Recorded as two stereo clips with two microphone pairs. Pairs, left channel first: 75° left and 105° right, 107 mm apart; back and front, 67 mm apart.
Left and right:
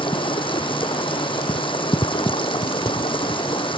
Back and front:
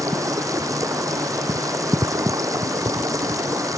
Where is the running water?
35° left.